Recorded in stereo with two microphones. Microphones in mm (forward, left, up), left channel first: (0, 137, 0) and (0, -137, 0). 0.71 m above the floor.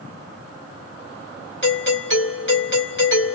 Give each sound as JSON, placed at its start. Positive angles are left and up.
{"t": 1.6, "sound": "a doorbell", "side_deg": 40, "distance_m": 2.0}